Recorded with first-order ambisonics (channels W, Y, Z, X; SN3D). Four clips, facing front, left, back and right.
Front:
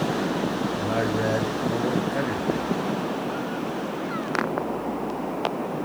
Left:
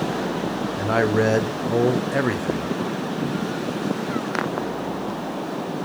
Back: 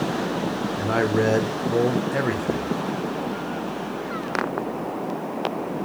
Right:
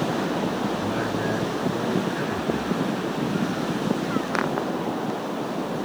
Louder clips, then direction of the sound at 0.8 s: Left 6 dB, back 6 dB; 115° left.